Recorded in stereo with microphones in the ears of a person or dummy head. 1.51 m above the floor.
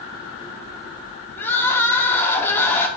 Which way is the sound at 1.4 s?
15° left (ahead or behind).